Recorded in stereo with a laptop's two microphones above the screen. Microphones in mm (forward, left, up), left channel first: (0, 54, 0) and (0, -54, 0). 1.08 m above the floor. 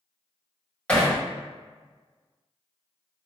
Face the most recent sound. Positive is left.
turn(degrees=10)  # may be behind; listen again after turning